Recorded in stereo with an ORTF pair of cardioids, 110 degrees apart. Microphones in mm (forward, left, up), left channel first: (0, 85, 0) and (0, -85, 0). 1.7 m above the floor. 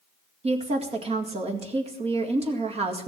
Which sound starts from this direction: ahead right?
A woman speaking, at 0.4 s.